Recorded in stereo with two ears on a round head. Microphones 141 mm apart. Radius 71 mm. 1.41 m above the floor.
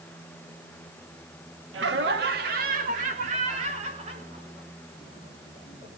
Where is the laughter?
85° right, 2.5 m; by 5.9 s 30° right (ahead or behind), 7 m.